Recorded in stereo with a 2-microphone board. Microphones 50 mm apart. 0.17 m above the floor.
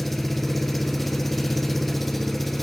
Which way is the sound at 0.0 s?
5° left (ahead or behind).